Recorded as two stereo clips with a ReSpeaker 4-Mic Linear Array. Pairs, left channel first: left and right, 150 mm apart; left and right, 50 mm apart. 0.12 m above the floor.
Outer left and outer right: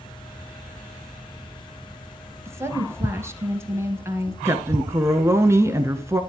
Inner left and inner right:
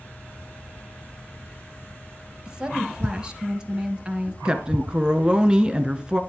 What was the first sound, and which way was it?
A woman speaking, 20° right (ahead or behind).